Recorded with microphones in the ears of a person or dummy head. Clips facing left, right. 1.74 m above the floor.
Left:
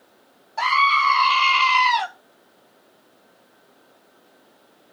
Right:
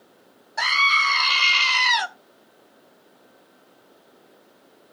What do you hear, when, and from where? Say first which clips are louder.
0.6 s a scream: left 5 dB; 10° right (ahead or behind), 0.6 m